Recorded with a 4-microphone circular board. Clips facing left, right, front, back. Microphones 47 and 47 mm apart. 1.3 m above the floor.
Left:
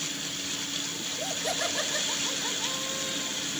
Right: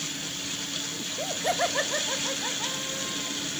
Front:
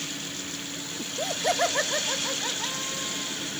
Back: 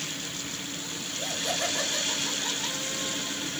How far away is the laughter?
About 1.7 m.